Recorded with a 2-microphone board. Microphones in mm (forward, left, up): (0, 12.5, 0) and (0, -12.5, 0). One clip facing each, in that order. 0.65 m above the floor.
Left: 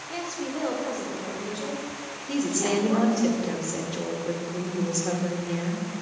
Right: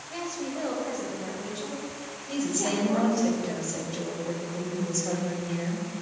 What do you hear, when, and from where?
0.1 s a woman speaking: 60° left (ahead or behind), 2 m; by 3.3 s 75° left (ahead or behind), 4.5 m
2.3 s a woman speaking: 60° left (ahead or behind), 1.8 m